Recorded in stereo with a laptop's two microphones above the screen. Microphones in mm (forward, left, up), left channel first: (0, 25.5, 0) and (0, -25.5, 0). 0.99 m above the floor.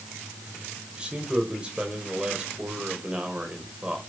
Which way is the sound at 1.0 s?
20° right (ahead or behind).